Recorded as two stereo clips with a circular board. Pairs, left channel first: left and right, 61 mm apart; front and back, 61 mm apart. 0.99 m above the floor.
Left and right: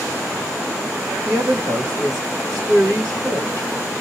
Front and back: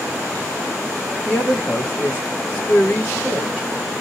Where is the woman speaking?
110° right, 1.7 m.